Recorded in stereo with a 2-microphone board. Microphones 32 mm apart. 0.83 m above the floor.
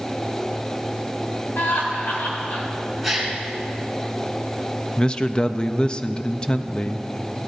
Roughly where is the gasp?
Centre.